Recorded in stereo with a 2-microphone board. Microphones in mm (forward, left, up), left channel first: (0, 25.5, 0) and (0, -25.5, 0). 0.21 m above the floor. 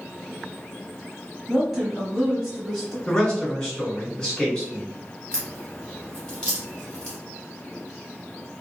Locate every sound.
1.5 s a woman speaking: 5° right (ahead or behind), 1.0 m; by 3.0 s 5° left (ahead or behind), 1.5 m
3.1 s a man speaking: 15° left (ahead or behind), 1.5 m
5.3 s a crack: 20° left (ahead or behind), 1.3 m